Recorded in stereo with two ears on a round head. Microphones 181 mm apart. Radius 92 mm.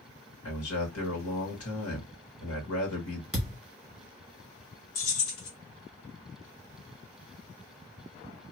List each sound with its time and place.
0.5 s a man speaking: 75° left (ahead or behind), 1.9 m
3.3 s a thud: 5° right (ahead or behind), 1.7 m
5.0 s keys jangling: 75° left (ahead or behind), 1.5 m